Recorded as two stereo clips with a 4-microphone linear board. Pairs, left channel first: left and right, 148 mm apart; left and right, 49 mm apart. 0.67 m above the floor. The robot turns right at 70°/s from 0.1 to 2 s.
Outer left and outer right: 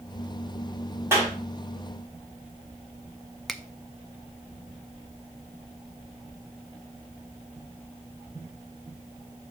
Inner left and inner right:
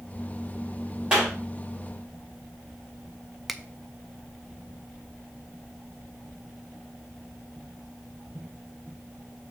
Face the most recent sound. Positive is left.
turn(degrees=0)  # may be behind; listen again after turning